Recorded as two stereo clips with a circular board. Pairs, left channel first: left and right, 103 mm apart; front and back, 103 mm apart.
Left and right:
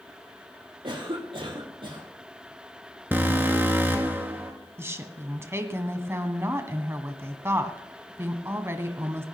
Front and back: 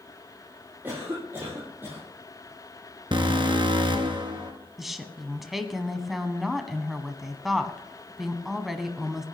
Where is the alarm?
155° right, 1.7 m.